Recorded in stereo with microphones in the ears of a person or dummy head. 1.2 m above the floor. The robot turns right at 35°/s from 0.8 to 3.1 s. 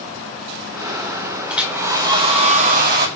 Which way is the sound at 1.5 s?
Straight behind.